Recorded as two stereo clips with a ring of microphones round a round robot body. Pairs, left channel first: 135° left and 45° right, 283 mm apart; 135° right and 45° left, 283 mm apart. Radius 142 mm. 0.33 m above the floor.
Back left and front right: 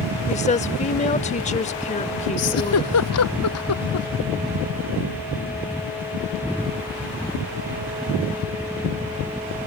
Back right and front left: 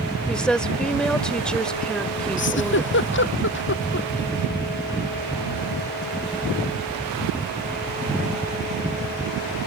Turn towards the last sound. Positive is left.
turn(degrees=175)